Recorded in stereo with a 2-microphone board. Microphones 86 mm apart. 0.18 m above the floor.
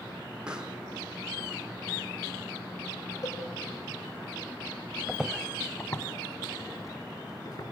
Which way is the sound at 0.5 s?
10° right (ahead or behind).